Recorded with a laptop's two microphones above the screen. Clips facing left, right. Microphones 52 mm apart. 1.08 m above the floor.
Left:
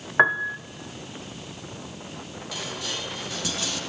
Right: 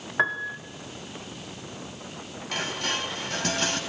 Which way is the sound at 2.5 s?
45° right (ahead or behind).